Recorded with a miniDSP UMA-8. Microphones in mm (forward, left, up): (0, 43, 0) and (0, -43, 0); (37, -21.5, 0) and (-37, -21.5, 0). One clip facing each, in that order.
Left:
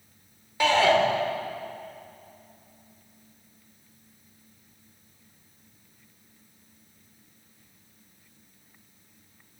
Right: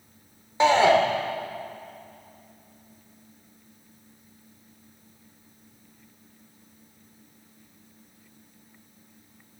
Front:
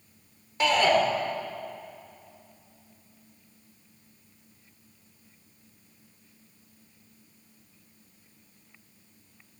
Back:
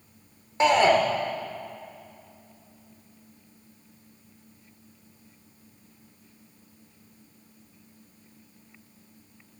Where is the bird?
I don't hear a bird.